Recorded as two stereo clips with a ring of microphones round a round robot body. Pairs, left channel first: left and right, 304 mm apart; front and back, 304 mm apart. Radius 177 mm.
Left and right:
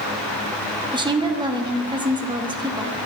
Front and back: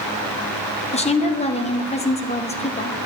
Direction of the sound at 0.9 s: 35° right.